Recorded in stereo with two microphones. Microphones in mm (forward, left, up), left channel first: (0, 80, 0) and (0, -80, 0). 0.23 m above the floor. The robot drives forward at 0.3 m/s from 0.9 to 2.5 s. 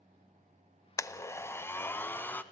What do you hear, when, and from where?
1.0 s a blender: 20° left (ahead or behind), 0.5 m; by 2.4 s 10° left (ahead or behind), 0.9 m